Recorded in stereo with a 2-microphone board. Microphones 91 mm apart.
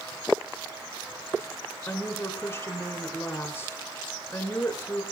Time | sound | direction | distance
1.9 | a woman speaking | 30° left (ahead or behind) | 5.5 m